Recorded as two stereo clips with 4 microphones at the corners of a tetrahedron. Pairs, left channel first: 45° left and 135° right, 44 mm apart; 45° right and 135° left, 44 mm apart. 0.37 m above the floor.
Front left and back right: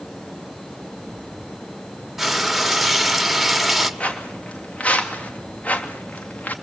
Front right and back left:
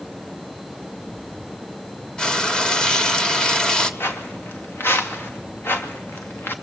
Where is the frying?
60° right, 1.4 m.